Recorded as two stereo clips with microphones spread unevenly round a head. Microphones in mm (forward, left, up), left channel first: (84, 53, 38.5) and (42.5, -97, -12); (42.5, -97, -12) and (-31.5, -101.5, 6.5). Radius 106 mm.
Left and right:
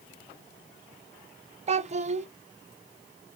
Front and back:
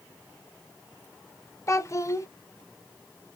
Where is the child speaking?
50° right, 0.6 m.